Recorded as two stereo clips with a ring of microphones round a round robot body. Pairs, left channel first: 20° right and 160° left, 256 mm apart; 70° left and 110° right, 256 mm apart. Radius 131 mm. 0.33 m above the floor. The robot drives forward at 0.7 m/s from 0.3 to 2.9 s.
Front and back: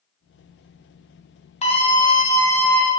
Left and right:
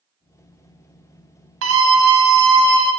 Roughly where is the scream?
Right.